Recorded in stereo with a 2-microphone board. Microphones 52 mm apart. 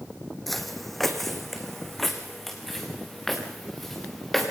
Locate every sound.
0.5 s footsteps: centre (ahead or behind), 1.7 m